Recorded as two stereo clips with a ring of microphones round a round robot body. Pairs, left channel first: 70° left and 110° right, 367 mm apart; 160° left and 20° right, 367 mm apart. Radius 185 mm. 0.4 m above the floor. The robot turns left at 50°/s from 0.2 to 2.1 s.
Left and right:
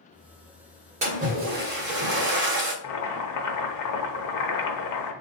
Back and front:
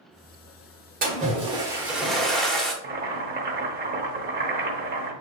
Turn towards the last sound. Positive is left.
turn(degrees=40)